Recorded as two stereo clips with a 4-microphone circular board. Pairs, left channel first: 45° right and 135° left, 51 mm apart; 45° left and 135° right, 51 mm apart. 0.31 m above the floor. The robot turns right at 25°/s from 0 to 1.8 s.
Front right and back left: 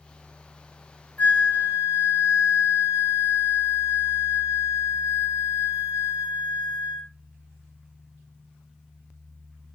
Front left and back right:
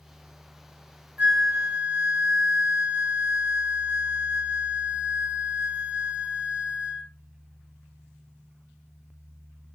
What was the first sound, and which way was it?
A flute, 90° right.